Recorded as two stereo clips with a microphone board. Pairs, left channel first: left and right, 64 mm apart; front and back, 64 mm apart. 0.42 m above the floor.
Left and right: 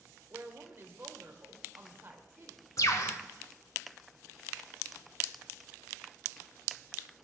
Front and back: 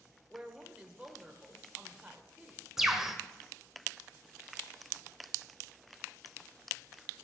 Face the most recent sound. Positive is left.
turn(degrees=100)